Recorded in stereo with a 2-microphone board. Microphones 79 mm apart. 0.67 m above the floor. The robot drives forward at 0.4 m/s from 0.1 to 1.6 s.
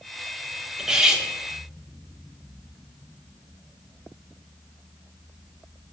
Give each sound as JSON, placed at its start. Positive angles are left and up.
{"t": 0.8, "sound": "cutlery clinking", "side_deg": -10, "distance_m": 0.7}